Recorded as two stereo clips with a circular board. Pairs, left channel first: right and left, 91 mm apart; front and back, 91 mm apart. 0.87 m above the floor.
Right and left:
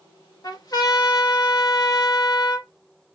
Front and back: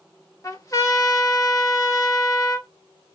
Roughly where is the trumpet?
Ahead right.